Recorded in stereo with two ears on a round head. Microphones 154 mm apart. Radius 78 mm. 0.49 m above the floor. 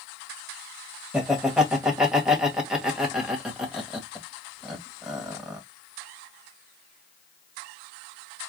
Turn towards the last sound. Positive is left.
turn(degrees=-5)  # may be behind; listen again after turning